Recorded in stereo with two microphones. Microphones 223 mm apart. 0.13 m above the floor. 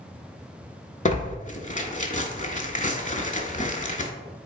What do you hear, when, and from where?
1.1 s tearing paper: 35° left (ahead or behind), 0.5 m